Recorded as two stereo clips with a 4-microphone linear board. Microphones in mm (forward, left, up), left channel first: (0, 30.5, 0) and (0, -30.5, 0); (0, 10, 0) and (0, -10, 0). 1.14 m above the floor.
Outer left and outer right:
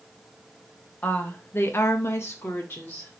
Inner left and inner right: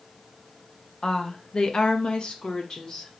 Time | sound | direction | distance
1.0 | a woman speaking | 25° left (ahead or behind) | 0.7 m